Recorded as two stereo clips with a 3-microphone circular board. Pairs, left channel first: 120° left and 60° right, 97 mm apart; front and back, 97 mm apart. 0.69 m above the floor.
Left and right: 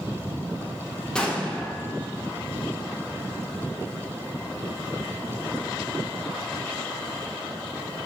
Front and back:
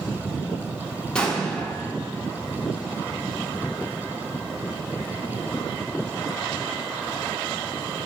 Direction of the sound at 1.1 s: 55° left.